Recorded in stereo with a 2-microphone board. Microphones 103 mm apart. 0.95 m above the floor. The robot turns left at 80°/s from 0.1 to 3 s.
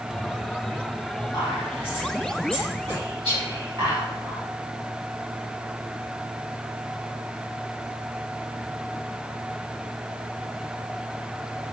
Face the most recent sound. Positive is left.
turn(degrees=-50)  # may be behind; listen again after turning